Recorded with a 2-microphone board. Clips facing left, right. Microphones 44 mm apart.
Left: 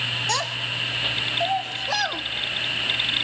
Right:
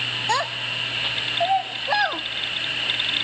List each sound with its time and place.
0.3 s a child speaking: 20° right (ahead or behind), 0.5 m